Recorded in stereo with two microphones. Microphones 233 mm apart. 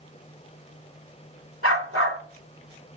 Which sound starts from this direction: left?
A dog barking, at 1.6 s.